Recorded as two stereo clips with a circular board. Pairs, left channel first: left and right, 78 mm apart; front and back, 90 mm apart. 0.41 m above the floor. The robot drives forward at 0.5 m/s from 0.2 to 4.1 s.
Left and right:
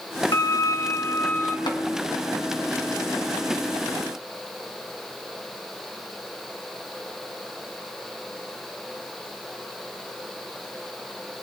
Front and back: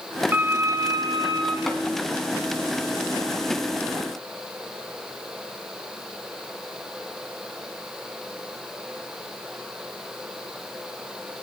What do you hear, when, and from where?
0.3 s a violin: 115° left, 0.5 m; by 1.6 s 150° left, 1.0 m
1.7 s tapping: 85° left, 1.9 m